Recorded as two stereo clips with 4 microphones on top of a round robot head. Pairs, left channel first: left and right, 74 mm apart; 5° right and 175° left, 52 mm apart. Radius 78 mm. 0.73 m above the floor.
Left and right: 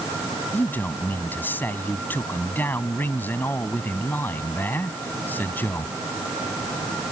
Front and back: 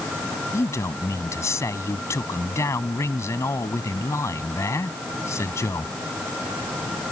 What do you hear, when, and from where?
0.5 s a man speaking: 20° left